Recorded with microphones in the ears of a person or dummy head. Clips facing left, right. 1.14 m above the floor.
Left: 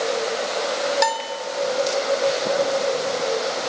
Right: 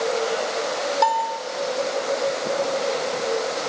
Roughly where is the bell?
Left.